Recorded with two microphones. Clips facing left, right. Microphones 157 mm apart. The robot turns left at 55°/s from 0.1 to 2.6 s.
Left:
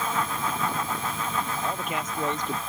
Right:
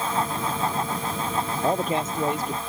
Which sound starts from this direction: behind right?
A man speaking, at 1.6 s.